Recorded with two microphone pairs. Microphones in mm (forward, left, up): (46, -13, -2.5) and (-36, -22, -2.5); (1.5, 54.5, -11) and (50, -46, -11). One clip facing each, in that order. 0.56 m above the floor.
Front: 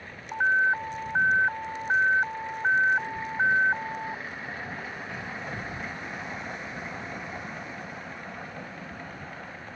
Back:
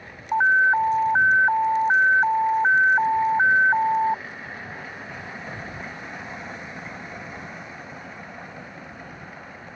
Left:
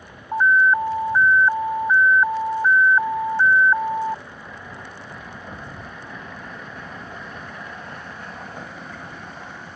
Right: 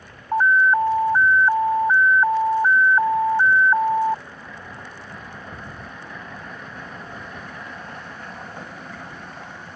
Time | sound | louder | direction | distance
0.3 | an alarm | back 6 dB, even | 130° right | ?